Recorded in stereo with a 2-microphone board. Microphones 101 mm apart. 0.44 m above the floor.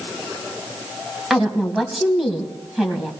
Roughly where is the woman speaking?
Centre.